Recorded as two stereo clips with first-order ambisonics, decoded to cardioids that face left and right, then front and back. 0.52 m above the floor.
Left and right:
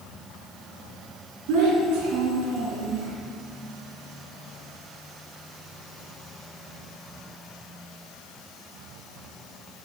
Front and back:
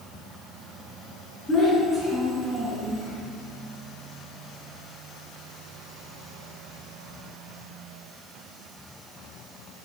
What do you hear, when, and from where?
1.5 s a child speaking: 80° right, 3.5 m; by 3.1 s 110° right, 4.5 m